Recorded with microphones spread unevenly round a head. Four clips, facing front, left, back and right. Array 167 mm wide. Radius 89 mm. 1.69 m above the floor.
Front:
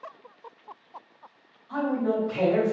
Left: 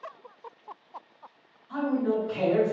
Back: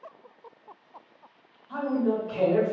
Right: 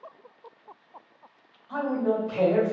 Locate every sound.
1.7 s a man speaking: 85° right, 1.9 m